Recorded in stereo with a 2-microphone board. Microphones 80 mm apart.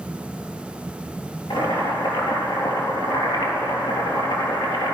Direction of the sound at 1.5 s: 85° left.